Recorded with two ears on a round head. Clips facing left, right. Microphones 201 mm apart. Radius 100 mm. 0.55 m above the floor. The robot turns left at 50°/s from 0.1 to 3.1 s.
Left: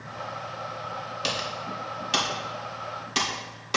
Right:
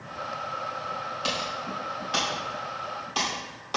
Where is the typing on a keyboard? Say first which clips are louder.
Even; 30° left (ahead or behind), 1.5 m.